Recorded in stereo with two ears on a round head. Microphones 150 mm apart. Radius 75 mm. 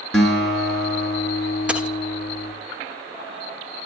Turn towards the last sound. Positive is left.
turn(degrees=-5)  # may be behind; listen again after turning